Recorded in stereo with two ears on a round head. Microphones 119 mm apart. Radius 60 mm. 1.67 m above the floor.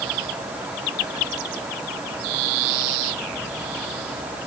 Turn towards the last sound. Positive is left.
No sound to turn to.